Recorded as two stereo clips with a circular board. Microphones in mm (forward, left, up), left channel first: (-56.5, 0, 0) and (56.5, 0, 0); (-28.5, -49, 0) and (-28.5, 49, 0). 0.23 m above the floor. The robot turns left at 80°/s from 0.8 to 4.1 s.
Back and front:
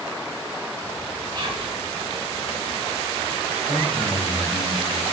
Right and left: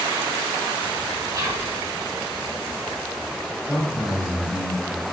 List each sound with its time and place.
1.3 s whispering: 45° left, 3.5 m; by 1.8 s 10° left, 3.5 m
3.6 s a man speaking: 130° right, 5.5 m; by 5.0 s 165° right, 5.5 m